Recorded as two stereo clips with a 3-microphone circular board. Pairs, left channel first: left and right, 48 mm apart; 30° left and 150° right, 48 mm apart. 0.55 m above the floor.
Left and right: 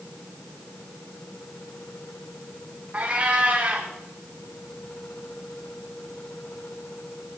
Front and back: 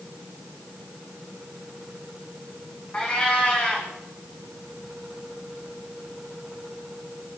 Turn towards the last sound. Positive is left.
turn(degrees=-35)